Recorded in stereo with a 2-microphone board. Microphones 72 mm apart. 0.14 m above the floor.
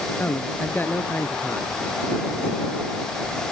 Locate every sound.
0.2 s a man speaking: 30° left (ahead or behind)